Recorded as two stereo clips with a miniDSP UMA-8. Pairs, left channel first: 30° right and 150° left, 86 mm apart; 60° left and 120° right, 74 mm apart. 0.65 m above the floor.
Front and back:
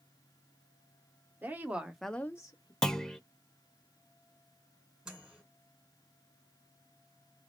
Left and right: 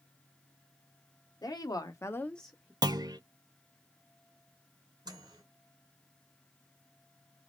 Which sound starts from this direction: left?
A woman speaking, at 1.4 s.